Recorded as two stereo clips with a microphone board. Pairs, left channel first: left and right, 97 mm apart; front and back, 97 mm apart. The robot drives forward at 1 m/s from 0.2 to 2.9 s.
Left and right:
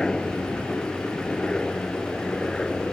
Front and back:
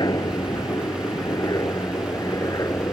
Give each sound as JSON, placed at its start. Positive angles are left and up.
{"t": 0.0, "sound": "a helicopter", "azimuth_deg": 10}